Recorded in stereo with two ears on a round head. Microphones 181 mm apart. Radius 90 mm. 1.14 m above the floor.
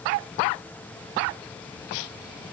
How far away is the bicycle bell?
I don't hear a bicycle bell.